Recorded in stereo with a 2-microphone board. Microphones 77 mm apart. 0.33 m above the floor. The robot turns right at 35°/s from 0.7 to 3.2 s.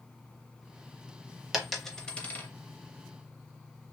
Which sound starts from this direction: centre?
A dropped coin, at 1.5 s.